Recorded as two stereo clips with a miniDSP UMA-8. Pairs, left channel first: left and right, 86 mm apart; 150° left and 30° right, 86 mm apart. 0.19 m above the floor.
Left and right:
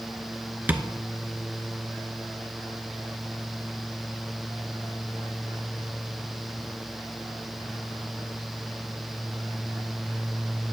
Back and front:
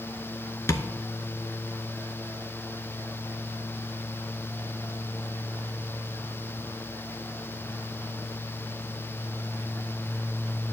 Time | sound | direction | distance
0.7 | tapping | 160° right | 0.6 m